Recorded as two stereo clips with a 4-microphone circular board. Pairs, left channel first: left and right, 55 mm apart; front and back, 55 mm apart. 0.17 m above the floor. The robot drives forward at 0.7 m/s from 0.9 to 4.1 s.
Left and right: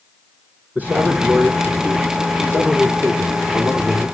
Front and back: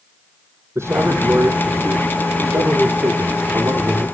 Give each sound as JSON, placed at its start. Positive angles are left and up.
{"t": 0.8, "sound": "a man speaking", "azimuth_deg": -145, "distance_m": 6.5}